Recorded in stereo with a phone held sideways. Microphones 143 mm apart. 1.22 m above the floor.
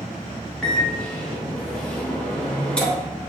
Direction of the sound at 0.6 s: 5° left (ahead or behind).